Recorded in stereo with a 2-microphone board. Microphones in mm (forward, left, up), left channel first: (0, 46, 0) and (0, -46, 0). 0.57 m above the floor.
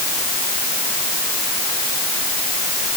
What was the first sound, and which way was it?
Only background noise.